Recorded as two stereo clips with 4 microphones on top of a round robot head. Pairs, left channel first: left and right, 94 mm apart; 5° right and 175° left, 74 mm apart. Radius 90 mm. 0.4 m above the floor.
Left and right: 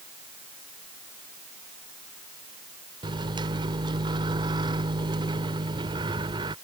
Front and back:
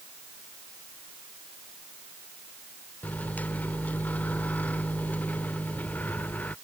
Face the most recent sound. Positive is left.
turn(degrees=-70)